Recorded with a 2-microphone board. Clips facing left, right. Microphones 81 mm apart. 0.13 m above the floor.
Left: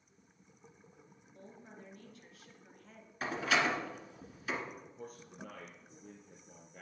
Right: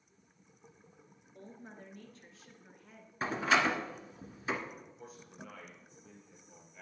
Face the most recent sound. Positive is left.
turn(degrees=50)  # may be behind; listen again after turning